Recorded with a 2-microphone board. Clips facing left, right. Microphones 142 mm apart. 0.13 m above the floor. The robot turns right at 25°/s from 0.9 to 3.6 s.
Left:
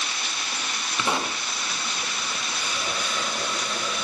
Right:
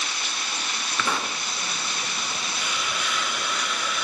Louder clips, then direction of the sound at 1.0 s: Left 2 dB; 20° left (ahead or behind).